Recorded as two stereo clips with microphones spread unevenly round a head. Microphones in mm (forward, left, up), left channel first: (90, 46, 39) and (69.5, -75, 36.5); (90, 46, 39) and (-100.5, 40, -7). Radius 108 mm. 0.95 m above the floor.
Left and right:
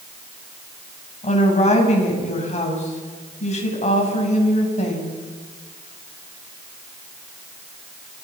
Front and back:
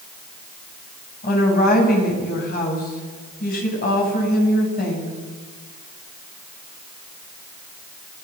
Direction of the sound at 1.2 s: 45° left.